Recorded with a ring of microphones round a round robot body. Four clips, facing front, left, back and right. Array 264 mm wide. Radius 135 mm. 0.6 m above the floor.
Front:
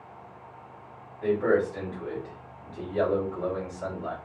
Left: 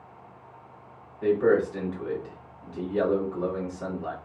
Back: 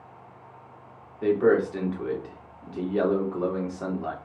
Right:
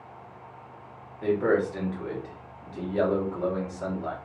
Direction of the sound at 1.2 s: 175° right.